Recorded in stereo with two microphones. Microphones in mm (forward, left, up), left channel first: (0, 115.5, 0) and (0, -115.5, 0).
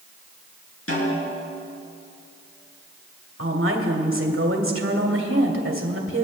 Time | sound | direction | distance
0.9 | a snare drum | 75° left (ahead or behind) | 4.5 m
3.4 | a woman speaking | 65° right (ahead or behind) | 2 m